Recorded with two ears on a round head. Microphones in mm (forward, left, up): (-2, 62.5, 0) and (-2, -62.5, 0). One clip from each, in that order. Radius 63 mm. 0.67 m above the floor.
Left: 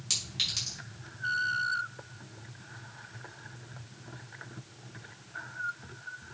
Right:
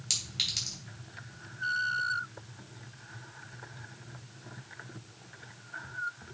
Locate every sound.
0.1 s a clink: 5° right (ahead or behind), 4 m